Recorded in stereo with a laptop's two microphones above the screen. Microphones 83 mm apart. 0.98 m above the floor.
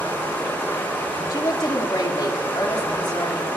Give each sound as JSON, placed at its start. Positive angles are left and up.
{"t": 0.0, "sound": "running water", "side_deg": 25, "distance_m": 3.5}
{"t": 1.3, "sound": "a woman speaking", "side_deg": 55, "distance_m": 2.5}